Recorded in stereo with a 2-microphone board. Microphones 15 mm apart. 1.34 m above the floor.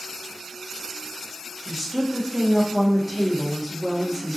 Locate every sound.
1.6 s a woman speaking: 15° right (ahead or behind), 1.3 m